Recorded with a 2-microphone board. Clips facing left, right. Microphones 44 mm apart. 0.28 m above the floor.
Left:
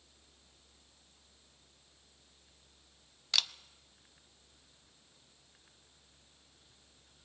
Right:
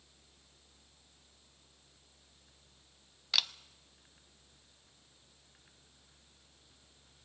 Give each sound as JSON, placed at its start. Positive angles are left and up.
{"t": 3.3, "sound": "a camera shutter", "side_deg": -5, "distance_m": 0.5}